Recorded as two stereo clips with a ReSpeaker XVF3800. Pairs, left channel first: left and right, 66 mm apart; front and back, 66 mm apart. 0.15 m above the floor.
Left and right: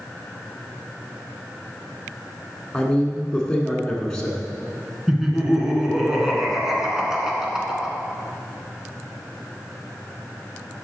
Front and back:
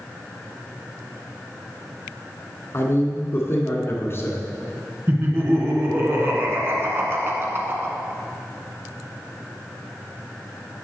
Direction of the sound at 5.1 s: 165° right.